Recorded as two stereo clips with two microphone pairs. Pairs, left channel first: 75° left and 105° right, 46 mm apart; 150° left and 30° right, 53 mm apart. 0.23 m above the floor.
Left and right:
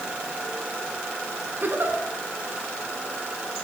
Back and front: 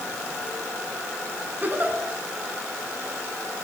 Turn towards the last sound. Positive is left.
turn(degrees=-80)